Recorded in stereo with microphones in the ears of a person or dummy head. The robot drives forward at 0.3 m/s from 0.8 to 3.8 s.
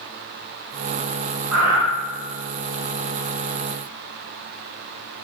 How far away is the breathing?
About 0.7 m.